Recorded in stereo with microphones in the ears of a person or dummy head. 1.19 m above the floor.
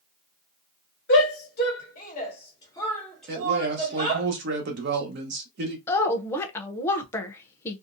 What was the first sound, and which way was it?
A shout, 55° left (ahead or behind).